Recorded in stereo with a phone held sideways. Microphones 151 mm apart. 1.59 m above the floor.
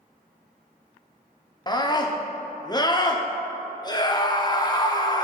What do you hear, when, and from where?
1.7 s a scream: 25° left (ahead or behind), 0.9 m